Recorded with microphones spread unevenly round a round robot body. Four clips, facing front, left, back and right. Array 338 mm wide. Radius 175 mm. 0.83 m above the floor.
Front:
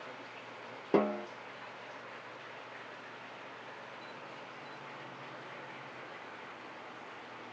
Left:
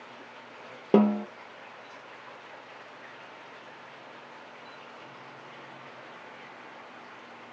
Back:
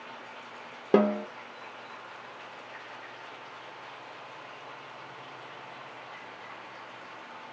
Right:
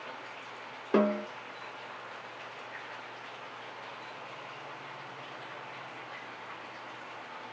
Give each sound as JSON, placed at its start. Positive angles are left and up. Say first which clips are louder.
{"t": 0.9, "sound": "a snare drum", "louder": "left 5 dB, back 6 dB", "azimuth_deg": 140, "distance_m": 0.8}